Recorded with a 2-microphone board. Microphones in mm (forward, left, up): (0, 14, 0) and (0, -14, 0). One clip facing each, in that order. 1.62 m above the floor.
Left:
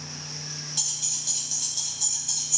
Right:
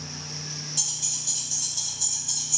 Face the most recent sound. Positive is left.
turn(degrees=5)  # may be behind; listen again after turning